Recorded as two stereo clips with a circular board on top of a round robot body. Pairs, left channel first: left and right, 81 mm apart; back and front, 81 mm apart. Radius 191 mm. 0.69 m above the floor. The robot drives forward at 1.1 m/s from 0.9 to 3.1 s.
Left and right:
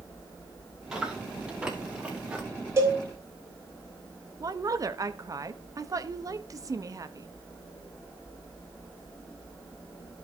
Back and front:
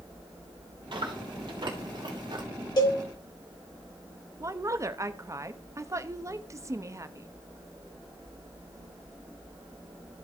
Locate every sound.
0.9 s chewing: 10° right, 4.5 m; by 2.4 s 15° right, 3 m
2.8 s a cowbell: 150° right, 4 m
4.4 s a woman speaking: 50° right, 1.0 m